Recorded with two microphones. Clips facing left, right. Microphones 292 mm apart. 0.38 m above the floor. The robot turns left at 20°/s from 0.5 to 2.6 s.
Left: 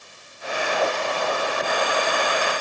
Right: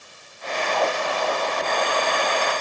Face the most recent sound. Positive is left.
No sound to turn to.